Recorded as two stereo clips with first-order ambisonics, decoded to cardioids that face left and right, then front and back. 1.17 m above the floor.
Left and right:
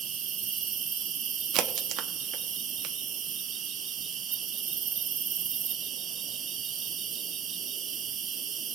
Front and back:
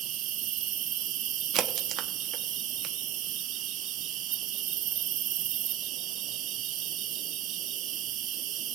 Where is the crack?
130° right, 0.9 m.